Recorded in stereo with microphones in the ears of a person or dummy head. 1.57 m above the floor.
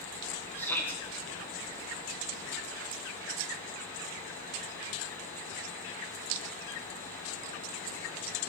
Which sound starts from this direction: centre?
A shout, at 0.6 s.